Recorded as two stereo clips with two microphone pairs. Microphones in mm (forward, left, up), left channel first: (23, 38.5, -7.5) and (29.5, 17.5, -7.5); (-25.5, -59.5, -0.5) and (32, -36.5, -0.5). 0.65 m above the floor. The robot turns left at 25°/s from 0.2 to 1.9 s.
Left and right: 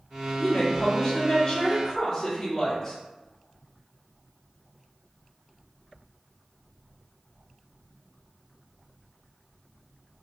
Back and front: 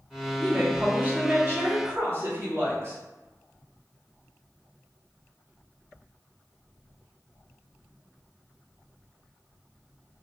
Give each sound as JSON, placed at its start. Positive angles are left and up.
{"t": 0.4, "sound": "a woman speaking", "azimuth_deg": 70, "distance_m": 1.5}